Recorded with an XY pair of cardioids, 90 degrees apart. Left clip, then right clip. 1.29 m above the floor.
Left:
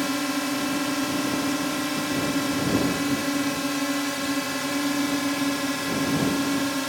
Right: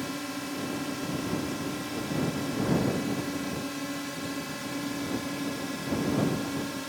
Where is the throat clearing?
No throat clearing in this recording.